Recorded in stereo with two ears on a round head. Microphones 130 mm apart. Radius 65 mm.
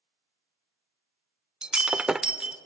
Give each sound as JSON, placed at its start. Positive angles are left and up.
{"t": 1.6, "sound": "breaking glass", "side_deg": -5, "distance_m": 0.5}